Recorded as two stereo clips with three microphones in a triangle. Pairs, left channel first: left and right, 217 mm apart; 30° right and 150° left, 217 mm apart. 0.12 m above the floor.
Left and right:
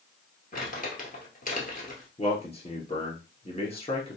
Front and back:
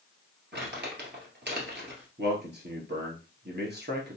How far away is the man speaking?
About 1.9 m.